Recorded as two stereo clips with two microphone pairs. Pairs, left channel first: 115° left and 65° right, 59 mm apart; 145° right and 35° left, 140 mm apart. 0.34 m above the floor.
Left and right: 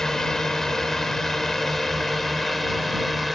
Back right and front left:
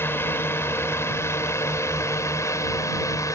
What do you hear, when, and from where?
0.0 s a drone: straight behind; by 3.4 s 155° right